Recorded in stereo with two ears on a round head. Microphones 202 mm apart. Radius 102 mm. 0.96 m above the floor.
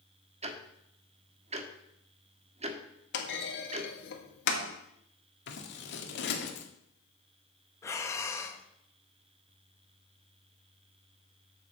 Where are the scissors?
60° left (ahead or behind), 1.8 m.